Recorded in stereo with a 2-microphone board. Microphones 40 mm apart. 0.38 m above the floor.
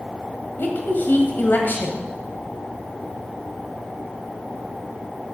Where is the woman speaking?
60° left (ahead or behind), 1.8 m.